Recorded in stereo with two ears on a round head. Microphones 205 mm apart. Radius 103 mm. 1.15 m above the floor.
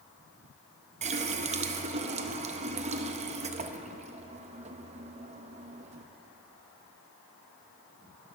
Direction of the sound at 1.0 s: 30° right (ahead or behind).